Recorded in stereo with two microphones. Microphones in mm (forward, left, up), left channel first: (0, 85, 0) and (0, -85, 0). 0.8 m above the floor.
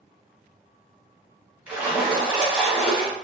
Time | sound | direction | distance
1.7 | a splash | 10° right (ahead or behind) | 1.1 m